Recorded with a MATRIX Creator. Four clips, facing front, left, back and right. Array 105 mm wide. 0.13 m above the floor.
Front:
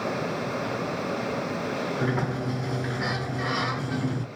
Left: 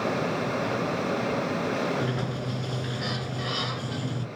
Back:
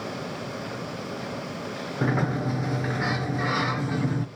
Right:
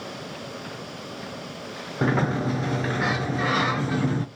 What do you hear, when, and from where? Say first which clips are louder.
2.0 s a sliding door: right 6 dB, back 6 dB; 100° right, 0.6 m